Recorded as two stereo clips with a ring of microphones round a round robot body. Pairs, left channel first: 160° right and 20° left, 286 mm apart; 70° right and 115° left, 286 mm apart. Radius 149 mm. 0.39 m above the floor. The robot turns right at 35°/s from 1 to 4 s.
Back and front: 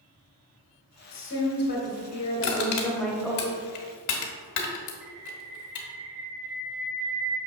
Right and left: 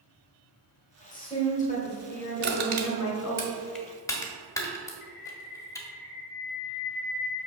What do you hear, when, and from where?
1.1 s a woman speaking: 140° right, 1.2 m; by 3.4 s 55° right, 1.2 m
2.4 s crushing: 160° left, 1.4 m; by 5.9 s 145° right, 1.4 m
5.0 s a bird: 40° right, 0.7 m